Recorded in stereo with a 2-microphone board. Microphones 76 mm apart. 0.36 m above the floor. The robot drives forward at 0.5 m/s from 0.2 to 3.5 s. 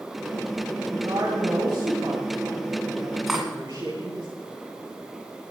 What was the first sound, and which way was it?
A woman speaking, 70° right (ahead or behind).